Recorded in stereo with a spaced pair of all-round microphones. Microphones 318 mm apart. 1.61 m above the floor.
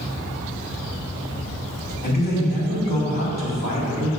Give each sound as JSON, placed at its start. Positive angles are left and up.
{"t": 2.0, "sound": "a man speaking", "side_deg": 80, "distance_m": 2.5}